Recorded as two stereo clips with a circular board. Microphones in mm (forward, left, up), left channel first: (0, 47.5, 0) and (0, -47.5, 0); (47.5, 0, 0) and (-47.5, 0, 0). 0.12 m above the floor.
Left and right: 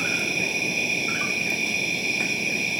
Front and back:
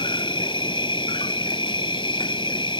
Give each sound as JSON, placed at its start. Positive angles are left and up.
{"t": 0.0, "sound": "an insect", "azimuth_deg": 0}